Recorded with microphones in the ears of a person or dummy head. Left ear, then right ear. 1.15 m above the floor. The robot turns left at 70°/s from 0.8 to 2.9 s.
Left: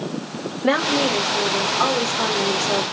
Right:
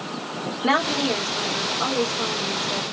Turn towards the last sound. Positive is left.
turn(degrees=40)